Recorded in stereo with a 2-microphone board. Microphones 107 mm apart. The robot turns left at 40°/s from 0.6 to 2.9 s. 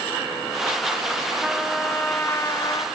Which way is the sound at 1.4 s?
175° right.